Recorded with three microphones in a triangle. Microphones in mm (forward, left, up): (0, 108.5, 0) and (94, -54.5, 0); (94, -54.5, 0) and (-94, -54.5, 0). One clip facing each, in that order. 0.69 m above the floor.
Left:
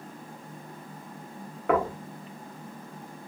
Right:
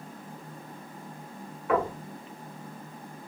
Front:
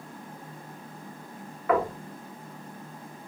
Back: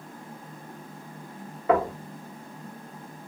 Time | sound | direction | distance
1.7 | knocking | 120° left | 0.7 m